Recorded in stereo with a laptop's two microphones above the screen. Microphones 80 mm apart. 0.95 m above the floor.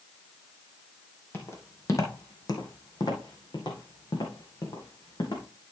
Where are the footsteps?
30° left (ahead or behind), 1.7 m; by 5.4 s 65° left (ahead or behind), 3 m.